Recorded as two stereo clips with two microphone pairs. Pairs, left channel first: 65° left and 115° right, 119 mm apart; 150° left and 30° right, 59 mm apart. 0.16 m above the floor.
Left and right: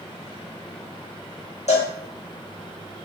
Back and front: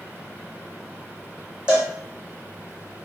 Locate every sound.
1.7 s a cowbell: 45° left, 1.4 m